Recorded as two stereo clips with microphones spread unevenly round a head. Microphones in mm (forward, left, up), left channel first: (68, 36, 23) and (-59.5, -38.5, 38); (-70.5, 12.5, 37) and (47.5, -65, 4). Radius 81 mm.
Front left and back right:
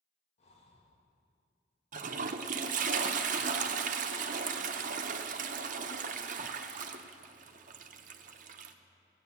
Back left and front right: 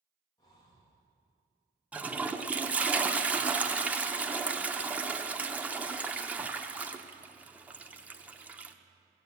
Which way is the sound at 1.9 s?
110° right.